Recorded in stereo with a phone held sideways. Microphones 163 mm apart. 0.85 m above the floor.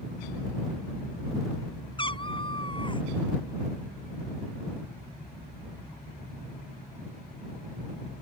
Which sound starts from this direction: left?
A cat meowing, at 2.0 s.